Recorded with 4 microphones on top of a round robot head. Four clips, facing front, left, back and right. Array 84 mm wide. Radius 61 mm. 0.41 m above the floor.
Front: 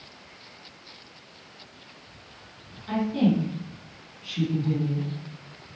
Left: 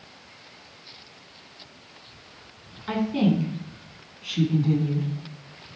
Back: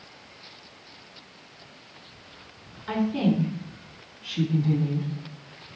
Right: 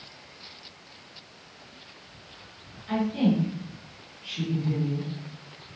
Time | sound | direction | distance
2.9 | a woman speaking | 115° left | 3.5 m